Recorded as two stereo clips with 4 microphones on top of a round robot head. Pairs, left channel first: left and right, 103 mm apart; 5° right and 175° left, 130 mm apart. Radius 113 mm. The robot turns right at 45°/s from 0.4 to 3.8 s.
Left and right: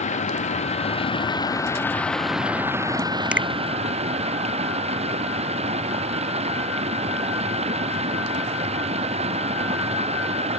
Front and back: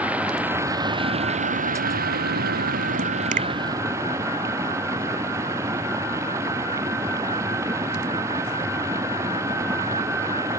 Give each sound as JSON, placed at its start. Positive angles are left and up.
{"t": 0.0, "sound": "running water", "azimuth_deg": 95}
{"t": 3.3, "sound": "a finger snap", "azimuth_deg": -170}